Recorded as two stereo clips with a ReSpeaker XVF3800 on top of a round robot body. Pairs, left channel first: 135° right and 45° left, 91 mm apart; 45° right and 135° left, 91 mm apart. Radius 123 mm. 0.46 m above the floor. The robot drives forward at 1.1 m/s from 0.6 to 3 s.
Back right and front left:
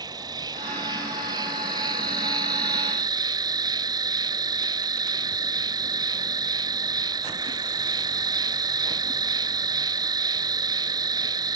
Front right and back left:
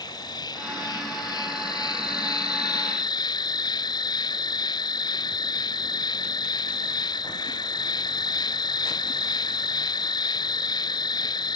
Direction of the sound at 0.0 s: Straight ahead.